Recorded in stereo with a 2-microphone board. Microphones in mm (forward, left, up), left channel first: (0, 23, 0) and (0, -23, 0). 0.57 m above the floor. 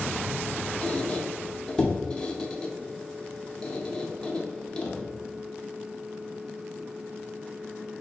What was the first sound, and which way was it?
A squeak, 20° left (ahead or behind).